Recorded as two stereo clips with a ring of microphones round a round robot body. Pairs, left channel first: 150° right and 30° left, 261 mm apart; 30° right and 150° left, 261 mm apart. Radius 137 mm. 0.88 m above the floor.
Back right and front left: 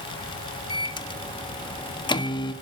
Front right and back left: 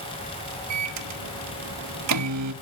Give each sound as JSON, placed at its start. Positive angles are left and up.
{"t": 0.7, "sound": "a microwave", "azimuth_deg": 135, "distance_m": 1.2}